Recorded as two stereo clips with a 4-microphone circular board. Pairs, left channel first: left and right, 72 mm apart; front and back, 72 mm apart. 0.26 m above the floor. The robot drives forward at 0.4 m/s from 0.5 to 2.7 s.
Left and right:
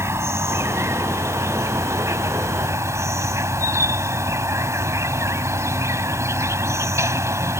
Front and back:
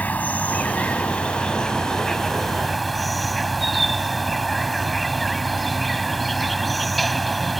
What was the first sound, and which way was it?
An insect, 60° right.